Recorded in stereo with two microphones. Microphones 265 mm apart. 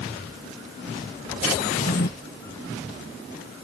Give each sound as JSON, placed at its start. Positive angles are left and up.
{"t": 1.6, "sound": "a drawer", "side_deg": 35}